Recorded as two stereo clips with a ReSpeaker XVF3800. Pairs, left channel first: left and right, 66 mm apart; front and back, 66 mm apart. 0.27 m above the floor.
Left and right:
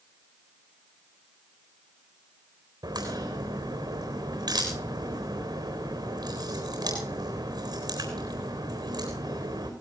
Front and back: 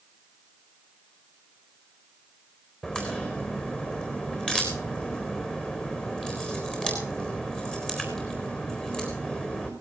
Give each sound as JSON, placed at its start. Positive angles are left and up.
{"t": 2.8, "sound": "a crack", "azimuth_deg": -80, "distance_m": 4.0}